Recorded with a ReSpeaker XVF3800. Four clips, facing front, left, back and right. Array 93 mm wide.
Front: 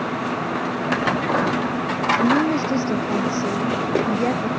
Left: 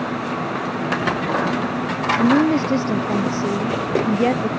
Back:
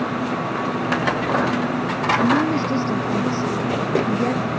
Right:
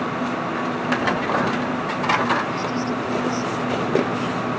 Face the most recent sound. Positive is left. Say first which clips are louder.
# left 6 dB, even
turn(degrees=80)